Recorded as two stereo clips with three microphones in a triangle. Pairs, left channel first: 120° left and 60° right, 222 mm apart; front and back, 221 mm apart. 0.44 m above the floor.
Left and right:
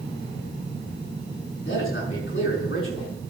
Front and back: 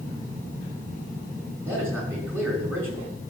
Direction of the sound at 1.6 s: 100° left.